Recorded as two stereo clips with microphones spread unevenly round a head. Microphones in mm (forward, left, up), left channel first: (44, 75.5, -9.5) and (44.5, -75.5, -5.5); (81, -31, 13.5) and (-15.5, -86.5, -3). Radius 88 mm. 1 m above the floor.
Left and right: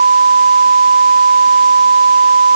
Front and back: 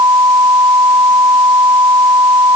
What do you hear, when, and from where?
Only background noise.